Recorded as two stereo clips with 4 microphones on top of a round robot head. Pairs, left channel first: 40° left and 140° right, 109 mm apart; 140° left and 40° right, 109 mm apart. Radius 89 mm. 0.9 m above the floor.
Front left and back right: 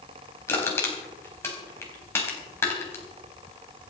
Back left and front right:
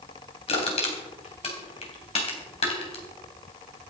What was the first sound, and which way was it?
Crushing, 110° left.